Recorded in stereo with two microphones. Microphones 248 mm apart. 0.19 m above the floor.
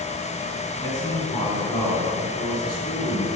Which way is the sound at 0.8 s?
15° left (ahead or behind).